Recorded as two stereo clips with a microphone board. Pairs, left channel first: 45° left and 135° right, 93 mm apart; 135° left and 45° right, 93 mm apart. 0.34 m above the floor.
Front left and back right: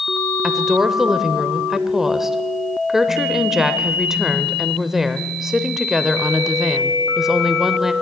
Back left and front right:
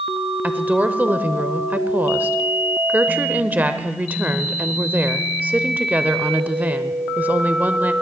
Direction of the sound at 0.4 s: 60° right.